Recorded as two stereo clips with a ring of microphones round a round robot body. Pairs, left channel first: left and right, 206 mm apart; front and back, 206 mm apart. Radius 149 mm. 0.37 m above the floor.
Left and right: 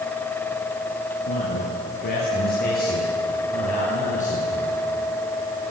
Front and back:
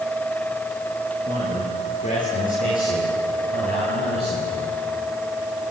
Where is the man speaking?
60° left, 8.5 m; by 4.8 s 35° left, 9 m.